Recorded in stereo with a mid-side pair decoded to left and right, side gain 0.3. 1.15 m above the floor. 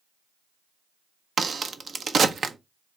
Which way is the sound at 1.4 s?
60° right.